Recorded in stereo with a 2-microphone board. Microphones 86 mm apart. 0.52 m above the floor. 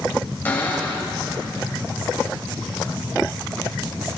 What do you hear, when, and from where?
0.5 s a cupboard door: 25° left (ahead or behind), 1.3 m